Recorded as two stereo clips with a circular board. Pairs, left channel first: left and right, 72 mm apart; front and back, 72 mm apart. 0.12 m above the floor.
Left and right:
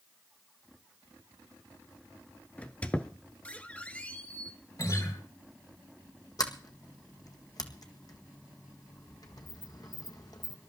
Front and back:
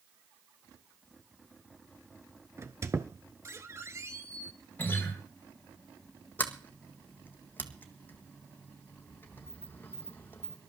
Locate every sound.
2.6 s a squeak: 155° left, 0.9 m
4.8 s a guitar: 60° left, 4 m
6.4 s a sliding door: 65° left, 1.5 m